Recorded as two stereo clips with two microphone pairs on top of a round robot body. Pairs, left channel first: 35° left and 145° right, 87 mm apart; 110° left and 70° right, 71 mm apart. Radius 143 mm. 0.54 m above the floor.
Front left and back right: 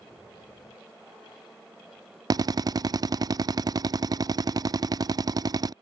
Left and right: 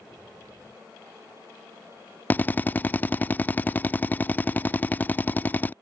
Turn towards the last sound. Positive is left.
turn(degrees=175)